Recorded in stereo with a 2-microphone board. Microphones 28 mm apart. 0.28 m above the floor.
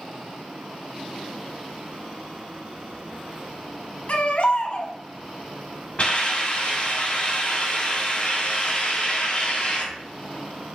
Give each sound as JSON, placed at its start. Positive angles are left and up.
{"t": 4.1, "sound": "a baby crying", "side_deg": 50, "distance_m": 0.7}
{"t": 6.0, "sound": "a hiss", "side_deg": 40, "distance_m": 1.8}